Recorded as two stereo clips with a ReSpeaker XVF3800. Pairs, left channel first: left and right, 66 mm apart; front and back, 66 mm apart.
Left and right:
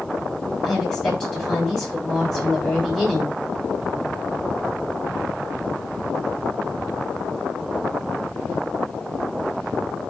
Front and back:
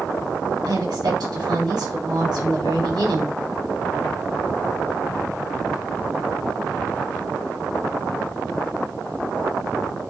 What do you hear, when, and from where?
0.6 s a woman speaking: 170° left, 5 m